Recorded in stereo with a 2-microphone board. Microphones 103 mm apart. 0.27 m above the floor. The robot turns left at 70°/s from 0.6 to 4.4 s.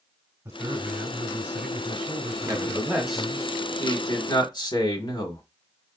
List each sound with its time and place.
0.5 s a man speaking: 25° right (ahead or behind), 1.4 m; by 3.5 s 30° left (ahead or behind), 1.4 m
2.5 s a man speaking: 130° right, 1.4 m; by 5.4 s 95° left, 1.4 m